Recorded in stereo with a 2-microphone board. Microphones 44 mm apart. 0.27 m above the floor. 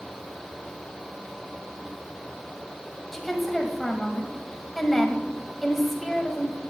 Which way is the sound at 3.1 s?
5° left (ahead or behind).